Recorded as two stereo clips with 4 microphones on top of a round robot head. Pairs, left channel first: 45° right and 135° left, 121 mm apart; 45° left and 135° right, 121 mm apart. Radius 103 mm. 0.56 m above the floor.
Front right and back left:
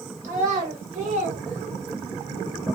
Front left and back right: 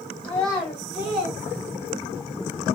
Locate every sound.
0.2 s a child speaking: 120° left, 2 m; by 2.3 s 130° left, 0.9 m